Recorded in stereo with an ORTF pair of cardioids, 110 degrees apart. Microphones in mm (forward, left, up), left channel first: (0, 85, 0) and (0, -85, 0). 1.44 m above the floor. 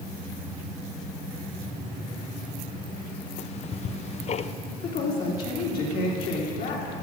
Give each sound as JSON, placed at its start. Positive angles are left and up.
{"t": 3.4, "sound": "ticking", "azimuth_deg": 40, "distance_m": 0.6}
{"t": 4.8, "sound": "a woman speaking", "azimuth_deg": 60, "distance_m": 3.5}